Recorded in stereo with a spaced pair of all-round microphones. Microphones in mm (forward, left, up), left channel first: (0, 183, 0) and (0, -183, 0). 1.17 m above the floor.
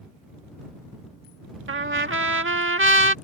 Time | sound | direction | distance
1.7 | a trumpet | 35° right (ahead or behind) | ?